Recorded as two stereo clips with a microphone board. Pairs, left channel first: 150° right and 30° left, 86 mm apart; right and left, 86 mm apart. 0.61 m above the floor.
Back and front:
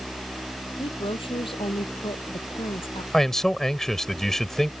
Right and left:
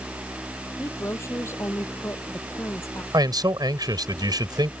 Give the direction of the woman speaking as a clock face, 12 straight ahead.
5 o'clock.